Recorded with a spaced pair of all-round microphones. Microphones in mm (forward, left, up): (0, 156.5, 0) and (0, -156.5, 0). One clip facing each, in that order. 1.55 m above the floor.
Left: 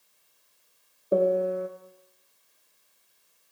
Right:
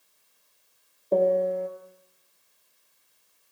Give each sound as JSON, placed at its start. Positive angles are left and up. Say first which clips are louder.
{"t": 1.1, "sound": "a piano", "louder": "right 1 dB", "side_deg": 10, "distance_m": 0.5}